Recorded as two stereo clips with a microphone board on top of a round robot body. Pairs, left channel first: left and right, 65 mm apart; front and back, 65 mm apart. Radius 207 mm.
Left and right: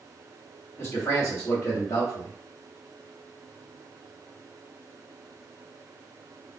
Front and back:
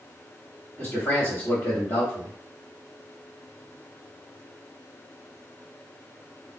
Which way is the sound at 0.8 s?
45° left.